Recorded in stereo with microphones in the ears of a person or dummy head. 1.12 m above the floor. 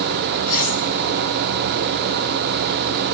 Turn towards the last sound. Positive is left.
turn(degrees=50)  # may be behind; listen again after turning